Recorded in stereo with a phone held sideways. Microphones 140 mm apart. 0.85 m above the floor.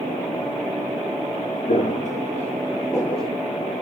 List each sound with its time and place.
1.7 s footsteps: 65° left (ahead or behind), 2.0 m; by 3.3 s 5° right (ahead or behind), 1.2 m